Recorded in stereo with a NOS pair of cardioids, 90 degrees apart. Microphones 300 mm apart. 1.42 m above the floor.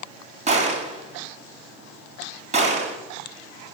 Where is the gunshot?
25° right, 3.5 m.